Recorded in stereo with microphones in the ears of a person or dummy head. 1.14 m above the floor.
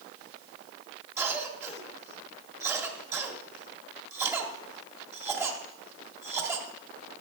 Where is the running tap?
I don't hear a running tap.